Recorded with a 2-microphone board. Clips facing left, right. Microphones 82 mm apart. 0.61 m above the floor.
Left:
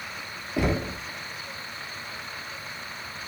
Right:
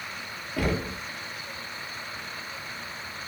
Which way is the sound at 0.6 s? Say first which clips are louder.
Left 2 dB; 25° left (ahead or behind).